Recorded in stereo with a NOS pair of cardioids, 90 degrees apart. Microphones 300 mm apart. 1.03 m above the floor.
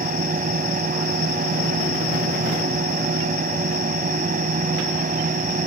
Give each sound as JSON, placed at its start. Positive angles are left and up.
{"t": 0.0, "sound": "a fan", "azimuth_deg": -25}